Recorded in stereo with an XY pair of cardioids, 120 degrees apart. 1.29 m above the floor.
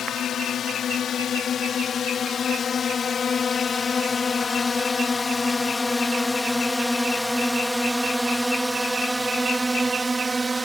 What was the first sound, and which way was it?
A drone, 50° left.